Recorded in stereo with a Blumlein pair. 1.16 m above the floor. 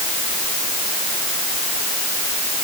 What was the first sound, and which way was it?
Only background noise.